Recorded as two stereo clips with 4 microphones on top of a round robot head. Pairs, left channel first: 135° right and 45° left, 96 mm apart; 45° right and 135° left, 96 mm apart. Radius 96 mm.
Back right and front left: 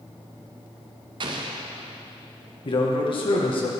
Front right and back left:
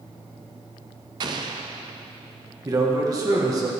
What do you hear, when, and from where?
1.2 s an explosion: 90° left, 0.8 m
2.6 s a man speaking: 170° right, 2 m